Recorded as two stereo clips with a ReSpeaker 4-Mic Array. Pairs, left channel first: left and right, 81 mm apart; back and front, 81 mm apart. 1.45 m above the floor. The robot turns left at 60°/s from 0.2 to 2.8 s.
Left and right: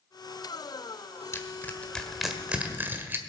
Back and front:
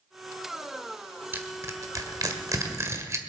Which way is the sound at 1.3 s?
55° left.